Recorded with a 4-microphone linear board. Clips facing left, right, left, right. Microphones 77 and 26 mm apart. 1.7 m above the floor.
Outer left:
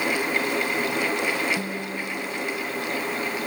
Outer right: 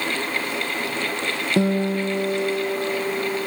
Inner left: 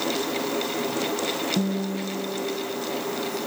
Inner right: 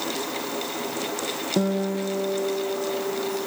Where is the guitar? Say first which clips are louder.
Outer right 10 dB, inner right 2 dB; 85° right.